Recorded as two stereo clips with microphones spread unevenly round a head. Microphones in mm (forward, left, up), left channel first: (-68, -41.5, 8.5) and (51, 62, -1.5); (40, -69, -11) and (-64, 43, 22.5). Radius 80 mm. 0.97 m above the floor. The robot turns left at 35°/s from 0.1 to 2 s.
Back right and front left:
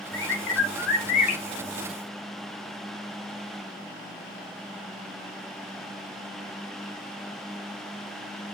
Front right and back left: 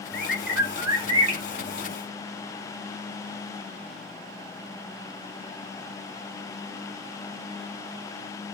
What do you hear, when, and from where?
0.1 s a bird: 135° right, 2.5 m; by 1.4 s straight behind, 2.5 m